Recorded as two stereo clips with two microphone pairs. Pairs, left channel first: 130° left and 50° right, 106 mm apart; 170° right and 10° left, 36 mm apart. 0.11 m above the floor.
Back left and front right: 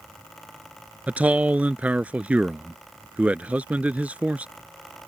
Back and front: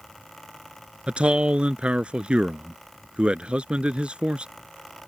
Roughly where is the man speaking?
Ahead.